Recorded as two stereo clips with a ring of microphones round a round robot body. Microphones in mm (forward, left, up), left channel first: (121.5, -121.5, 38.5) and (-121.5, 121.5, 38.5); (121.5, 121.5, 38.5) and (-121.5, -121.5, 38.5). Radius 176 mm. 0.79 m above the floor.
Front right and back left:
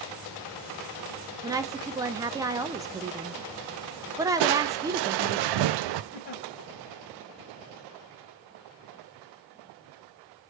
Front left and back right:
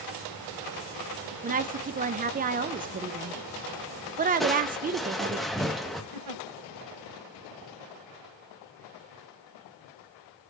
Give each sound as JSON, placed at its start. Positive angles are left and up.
{"t": 1.4, "sound": "a woman speaking", "azimuth_deg": -160, "distance_m": 0.6}
{"t": 4.4, "sound": "crushing", "azimuth_deg": 135, "distance_m": 0.5}
{"t": 6.1, "sound": "a giggle", "azimuth_deg": -110, "distance_m": 1.2}